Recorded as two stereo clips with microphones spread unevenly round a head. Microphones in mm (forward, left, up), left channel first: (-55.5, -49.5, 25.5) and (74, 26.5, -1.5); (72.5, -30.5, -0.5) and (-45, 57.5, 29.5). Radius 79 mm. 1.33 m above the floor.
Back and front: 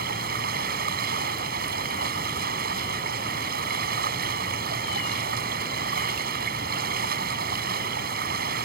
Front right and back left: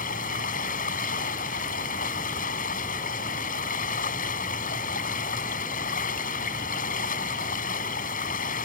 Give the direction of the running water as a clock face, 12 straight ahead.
12 o'clock.